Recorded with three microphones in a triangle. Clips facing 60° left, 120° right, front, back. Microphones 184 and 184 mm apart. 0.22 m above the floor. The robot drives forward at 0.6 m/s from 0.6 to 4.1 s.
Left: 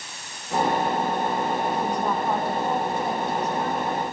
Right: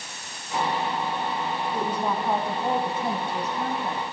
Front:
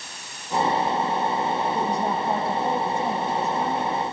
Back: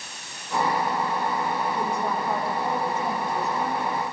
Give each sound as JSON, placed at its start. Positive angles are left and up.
{"t": 1.7, "sound": "a woman speaking", "azimuth_deg": -35, "distance_m": 1.7}